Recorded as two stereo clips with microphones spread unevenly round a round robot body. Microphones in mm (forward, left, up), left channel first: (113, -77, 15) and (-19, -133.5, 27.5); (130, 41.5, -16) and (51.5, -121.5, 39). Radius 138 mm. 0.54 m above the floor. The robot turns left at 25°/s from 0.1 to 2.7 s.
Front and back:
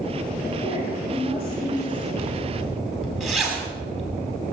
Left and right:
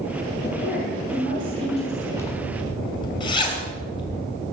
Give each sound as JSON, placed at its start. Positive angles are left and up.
{"t": 0.4, "sound": "a woman speaking", "azimuth_deg": 35, "distance_m": 6.0}
{"t": 2.2, "sound": "a zipper", "azimuth_deg": 125, "distance_m": 1.6}